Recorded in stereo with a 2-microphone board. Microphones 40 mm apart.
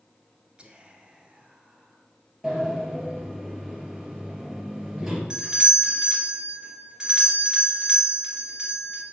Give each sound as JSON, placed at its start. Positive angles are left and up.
{"t": 0.6, "sound": "whispering", "side_deg": -25, "distance_m": 1.2}
{"t": 2.4, "sound": "a sliding door", "side_deg": -15, "distance_m": 2.5}
{"t": 5.3, "sound": "a doorbell", "side_deg": -20, "distance_m": 1.7}